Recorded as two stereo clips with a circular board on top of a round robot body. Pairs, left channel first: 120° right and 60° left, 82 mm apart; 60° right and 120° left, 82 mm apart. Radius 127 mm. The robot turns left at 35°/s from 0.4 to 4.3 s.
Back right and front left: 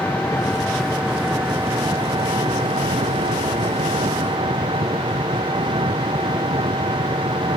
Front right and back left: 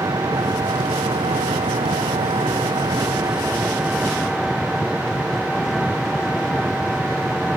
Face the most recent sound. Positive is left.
turn(degrees=30)